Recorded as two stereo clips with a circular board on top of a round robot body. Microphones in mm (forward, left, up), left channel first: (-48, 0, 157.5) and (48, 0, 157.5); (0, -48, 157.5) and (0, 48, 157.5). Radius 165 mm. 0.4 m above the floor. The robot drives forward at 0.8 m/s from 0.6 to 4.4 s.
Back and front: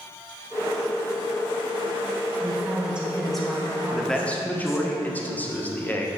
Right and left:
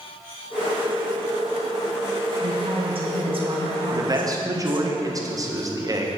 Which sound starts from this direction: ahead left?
A woman speaking, at 2.4 s.